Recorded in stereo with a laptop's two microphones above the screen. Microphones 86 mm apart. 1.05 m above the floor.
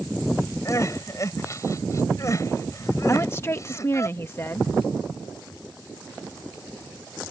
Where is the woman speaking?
30° left (ahead or behind).